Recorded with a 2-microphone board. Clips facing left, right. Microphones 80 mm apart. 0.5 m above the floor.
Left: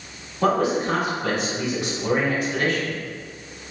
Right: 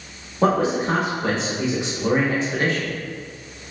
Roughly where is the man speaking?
Right.